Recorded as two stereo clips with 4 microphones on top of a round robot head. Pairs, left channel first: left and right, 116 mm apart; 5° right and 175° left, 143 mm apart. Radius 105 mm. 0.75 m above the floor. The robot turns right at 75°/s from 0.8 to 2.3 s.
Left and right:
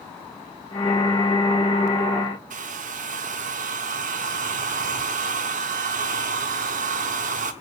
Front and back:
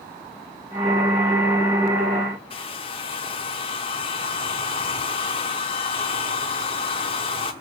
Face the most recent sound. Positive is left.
turn(degrees=-65)